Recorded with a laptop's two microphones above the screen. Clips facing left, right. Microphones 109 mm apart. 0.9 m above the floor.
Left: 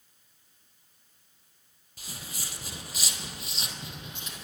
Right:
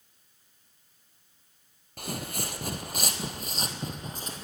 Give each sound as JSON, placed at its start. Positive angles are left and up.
{"t": 2.0, "sound": "footsteps", "side_deg": -60, "distance_m": 1.6}